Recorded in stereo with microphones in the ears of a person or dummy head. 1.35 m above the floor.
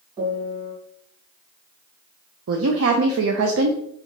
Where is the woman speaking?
75° right (ahead or behind), 0.5 m.